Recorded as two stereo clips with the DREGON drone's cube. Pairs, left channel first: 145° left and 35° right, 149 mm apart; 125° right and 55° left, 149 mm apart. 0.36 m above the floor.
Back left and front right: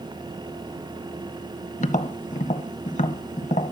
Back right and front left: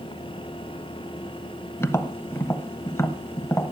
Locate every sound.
1.8 s tapping: 165° left, 0.7 m